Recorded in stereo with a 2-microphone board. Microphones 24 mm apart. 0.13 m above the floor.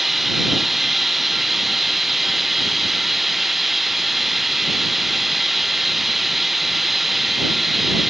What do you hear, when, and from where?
0.0 s running water: centre (ahead or behind)